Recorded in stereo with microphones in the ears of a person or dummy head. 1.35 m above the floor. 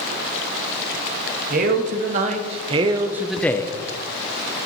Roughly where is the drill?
I don't hear a drill.